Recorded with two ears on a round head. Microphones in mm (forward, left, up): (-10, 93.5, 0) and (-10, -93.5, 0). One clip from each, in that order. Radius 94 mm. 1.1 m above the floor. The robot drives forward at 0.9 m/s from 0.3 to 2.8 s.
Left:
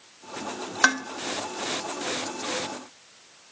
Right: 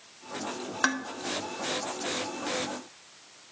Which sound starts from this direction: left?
Dishes clattering, at 0.8 s.